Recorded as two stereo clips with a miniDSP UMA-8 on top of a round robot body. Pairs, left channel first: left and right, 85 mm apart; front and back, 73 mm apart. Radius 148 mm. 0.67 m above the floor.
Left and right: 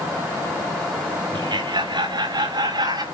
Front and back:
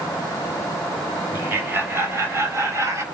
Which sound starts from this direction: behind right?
Laughter, at 1.3 s.